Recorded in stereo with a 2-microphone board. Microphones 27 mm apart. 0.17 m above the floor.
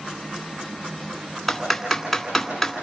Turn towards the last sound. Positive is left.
turn(degrees=5)  # may be behind; listen again after turning